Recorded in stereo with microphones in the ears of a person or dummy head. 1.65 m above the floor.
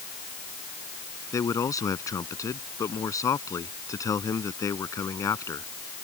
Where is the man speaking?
20° left (ahead or behind).